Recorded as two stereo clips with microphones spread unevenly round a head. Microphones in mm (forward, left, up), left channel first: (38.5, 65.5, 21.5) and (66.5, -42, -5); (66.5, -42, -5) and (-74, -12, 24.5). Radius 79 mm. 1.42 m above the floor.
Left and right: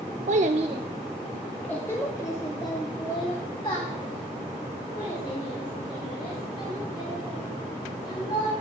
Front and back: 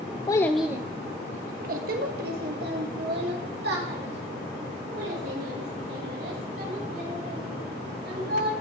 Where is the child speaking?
80° right, 0.6 m; by 8.5 s 160° left, 7.5 m.